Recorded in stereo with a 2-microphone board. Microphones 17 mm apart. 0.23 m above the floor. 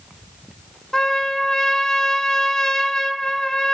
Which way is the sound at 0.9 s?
40° left (ahead or behind).